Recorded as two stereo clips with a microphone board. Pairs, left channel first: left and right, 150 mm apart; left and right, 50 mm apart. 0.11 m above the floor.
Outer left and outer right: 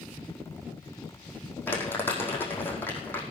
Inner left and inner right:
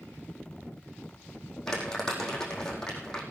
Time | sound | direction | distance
1.7 | crumpling | 15° left (ahead or behind) | 4.5 m